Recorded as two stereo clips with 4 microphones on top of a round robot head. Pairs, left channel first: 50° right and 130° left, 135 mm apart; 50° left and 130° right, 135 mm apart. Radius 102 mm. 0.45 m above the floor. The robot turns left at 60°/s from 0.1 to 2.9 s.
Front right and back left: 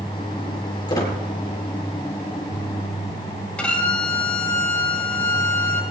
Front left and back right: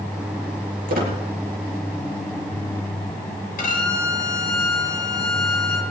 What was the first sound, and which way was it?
A squeak, 110° right.